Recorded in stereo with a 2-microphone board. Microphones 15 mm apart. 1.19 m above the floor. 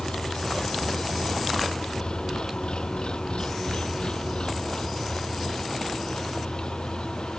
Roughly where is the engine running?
Left.